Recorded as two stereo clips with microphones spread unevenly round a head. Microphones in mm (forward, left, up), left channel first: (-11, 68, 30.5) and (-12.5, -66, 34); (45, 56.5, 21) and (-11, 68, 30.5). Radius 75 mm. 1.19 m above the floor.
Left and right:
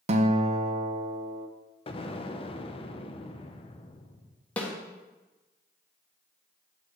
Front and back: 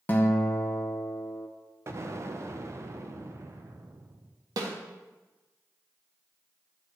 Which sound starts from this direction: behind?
A snare drum, at 4.6 s.